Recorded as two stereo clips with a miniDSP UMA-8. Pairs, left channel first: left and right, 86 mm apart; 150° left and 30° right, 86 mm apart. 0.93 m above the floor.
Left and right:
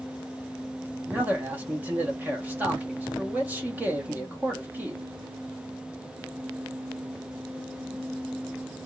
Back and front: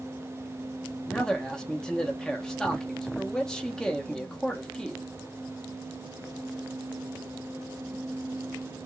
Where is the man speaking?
135° right, 0.8 m.